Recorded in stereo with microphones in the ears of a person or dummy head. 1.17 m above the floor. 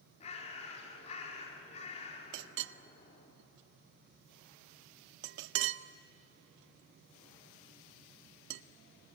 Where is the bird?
40° left (ahead or behind), 3.5 m.